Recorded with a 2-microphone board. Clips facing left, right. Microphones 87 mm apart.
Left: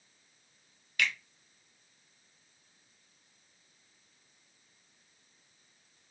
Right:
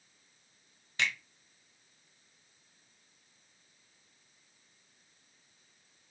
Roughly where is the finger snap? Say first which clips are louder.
Left 1 dB; right.